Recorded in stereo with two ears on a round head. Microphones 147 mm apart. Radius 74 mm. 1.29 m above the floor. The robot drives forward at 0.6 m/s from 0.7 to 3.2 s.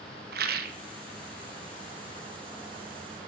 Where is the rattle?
60° right (ahead or behind), 0.8 m.